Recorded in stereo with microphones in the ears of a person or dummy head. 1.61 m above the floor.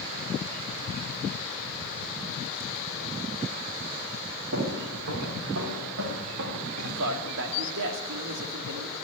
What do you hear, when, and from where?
4.5 s footsteps: 70° right (ahead or behind), 7 m; by 7.0 s 60° right (ahead or behind), 8 m
7.0 s a man speaking: 70° right (ahead or behind), 3 m